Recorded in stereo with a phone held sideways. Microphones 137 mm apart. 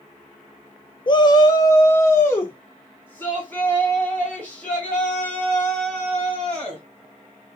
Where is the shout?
35° left (ahead or behind), 0.5 m; by 6.8 s 10° left (ahead or behind), 5 m.